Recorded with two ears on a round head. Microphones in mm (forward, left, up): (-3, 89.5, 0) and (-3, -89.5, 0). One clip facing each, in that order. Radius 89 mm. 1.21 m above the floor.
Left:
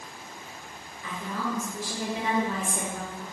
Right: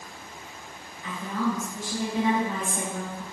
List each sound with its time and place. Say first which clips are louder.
1.0 s a woman speaking: right 5 dB; 85° left, 1.6 m